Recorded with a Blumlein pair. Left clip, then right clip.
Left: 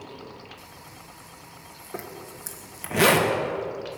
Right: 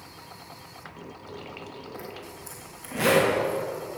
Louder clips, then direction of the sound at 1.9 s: Left 1 dB; 50° left.